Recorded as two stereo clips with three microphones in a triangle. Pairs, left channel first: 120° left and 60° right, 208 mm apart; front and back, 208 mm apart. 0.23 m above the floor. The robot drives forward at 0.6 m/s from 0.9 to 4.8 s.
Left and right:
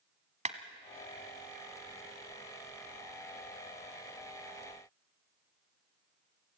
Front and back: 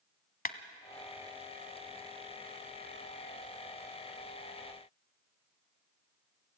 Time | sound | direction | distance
0.5 | a clap | 20° right | 1.3 m